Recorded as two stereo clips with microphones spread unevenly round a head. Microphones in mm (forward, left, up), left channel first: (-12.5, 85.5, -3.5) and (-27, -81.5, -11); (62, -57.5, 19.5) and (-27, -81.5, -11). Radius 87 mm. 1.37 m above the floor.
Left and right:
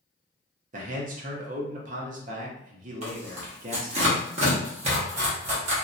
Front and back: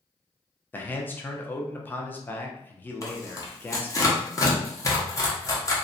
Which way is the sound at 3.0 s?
45° right.